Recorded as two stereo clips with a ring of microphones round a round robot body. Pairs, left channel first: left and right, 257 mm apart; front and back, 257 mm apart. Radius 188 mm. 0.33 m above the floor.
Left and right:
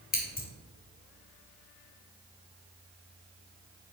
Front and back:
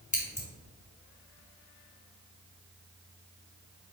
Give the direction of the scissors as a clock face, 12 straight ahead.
10 o'clock.